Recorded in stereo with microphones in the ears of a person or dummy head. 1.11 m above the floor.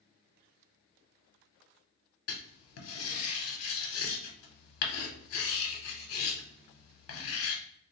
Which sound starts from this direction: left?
Writing, at 2.3 s.